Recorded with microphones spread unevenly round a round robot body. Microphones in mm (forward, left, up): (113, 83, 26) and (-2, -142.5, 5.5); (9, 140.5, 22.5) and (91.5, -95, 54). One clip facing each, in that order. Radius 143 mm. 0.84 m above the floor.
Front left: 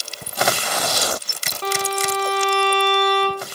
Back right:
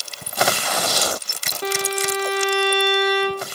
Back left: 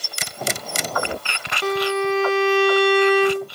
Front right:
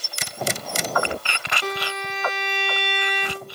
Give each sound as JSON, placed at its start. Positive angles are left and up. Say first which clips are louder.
{"t": 1.6, "sound": "a violin", "louder": "back right 1 dB, back left 11 dB", "azimuth_deg": 160, "distance_m": 1.8}